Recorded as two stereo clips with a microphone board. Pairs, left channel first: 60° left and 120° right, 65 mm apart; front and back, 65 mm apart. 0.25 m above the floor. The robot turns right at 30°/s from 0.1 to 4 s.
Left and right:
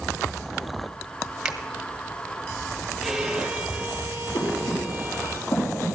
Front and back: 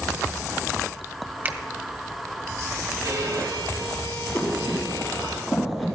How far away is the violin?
About 1.6 m.